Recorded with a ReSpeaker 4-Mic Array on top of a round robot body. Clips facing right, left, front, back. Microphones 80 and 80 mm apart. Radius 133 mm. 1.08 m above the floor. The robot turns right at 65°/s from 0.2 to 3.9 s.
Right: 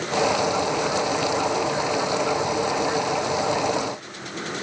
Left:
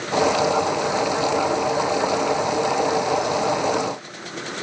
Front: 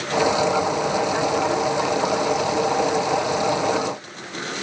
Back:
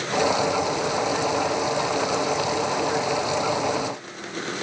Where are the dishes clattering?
No dishes clattering in this recording.